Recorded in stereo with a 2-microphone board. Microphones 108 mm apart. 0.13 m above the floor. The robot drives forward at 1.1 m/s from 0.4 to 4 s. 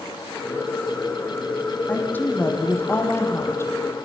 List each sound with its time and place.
1.9 s a woman speaking: 15° left (ahead or behind), 6 m; by 3.7 s 25° left (ahead or behind), 4 m